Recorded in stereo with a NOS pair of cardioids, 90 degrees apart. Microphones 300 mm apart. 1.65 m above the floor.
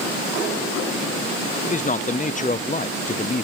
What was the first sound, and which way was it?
A man speaking, 25° left.